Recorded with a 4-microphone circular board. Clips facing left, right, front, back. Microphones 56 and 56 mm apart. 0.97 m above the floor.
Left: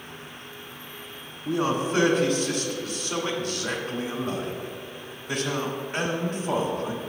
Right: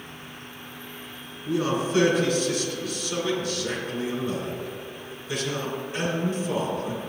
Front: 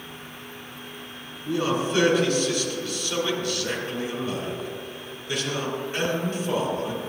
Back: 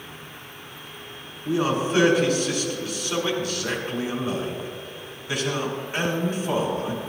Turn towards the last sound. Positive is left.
turn(degrees=105)